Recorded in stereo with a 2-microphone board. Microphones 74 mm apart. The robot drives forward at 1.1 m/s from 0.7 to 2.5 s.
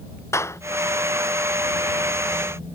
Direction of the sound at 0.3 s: 40° left (ahead or behind).